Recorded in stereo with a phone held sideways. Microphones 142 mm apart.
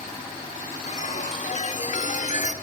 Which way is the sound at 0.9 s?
55° left (ahead or behind).